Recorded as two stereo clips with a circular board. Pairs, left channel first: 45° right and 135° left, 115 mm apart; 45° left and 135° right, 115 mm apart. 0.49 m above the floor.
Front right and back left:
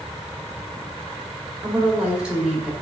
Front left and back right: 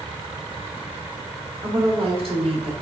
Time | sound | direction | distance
1.6 | a woman speaking | 145° right | 2 m